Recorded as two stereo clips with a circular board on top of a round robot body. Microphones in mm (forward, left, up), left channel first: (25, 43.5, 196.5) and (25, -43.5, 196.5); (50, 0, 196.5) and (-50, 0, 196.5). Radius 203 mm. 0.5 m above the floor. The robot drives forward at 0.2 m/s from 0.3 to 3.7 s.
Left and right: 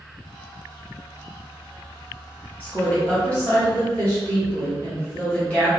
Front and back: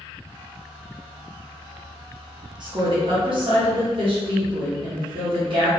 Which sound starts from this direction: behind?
A woman speaking, at 2.6 s.